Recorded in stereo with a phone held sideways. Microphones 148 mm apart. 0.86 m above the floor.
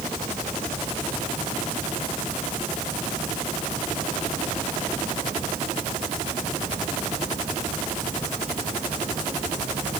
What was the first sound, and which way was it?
Only background noise.